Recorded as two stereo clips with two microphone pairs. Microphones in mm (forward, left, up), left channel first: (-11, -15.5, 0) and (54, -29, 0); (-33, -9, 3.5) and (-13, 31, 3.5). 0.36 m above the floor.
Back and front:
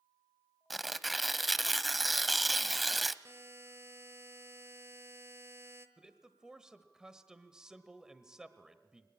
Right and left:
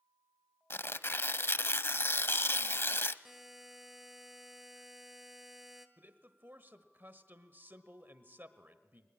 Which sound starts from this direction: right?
Tearing paper, at 0.7 s.